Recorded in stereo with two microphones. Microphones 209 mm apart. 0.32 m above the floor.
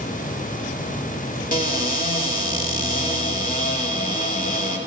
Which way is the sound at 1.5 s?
40° left (ahead or behind).